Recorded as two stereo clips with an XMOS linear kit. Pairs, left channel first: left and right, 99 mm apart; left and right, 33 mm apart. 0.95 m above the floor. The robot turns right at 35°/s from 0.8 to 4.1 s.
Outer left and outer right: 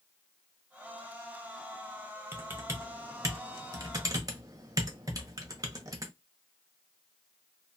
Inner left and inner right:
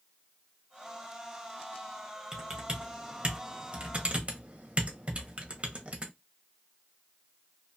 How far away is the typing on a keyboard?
About 0.7 m.